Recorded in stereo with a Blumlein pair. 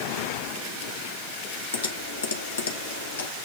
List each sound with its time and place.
1.7 s typing on a keyboard: 70° left, 1.7 m